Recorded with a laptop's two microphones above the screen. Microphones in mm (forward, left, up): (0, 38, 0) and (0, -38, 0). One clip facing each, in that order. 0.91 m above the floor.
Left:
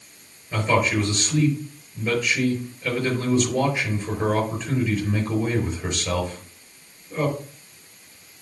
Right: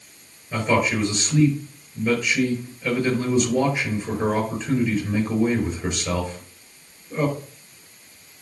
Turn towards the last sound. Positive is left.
turn(degrees=0)  # may be behind; listen again after turning